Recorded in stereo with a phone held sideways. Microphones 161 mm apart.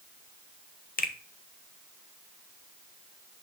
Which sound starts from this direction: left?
A finger snap, at 1.0 s.